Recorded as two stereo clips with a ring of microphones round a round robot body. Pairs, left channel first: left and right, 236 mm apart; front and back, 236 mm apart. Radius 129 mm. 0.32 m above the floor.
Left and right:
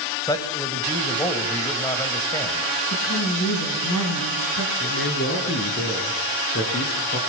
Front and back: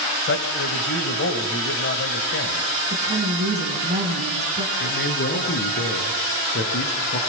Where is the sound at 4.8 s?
45° left, 4 m.